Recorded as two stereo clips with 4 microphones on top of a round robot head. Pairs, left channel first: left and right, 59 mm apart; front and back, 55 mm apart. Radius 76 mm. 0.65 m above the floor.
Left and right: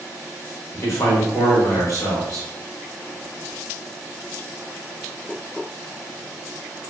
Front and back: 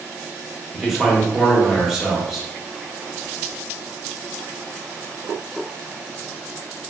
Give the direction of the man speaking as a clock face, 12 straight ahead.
9 o'clock.